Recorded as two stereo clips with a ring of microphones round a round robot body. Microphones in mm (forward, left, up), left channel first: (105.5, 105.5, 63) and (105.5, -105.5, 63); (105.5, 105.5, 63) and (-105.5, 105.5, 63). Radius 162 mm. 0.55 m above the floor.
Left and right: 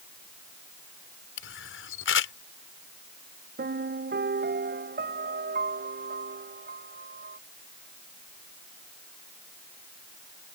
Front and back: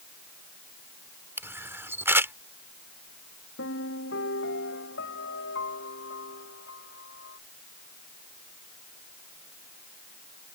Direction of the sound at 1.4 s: 100° left.